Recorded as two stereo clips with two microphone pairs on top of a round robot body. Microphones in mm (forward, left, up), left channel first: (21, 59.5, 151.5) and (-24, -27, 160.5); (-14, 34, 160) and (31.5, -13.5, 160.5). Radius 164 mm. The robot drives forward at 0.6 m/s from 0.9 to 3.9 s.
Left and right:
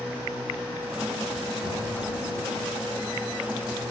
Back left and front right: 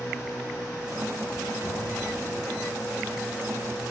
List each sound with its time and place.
1.6 s knocking: 155° right, 4.5 m; by 1.9 s 160° right, 4.5 m